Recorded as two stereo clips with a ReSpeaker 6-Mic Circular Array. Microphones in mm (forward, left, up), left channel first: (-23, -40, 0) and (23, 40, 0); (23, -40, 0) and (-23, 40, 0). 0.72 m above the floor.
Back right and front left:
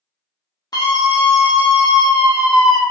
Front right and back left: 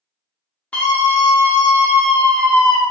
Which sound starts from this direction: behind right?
A scream, at 0.7 s.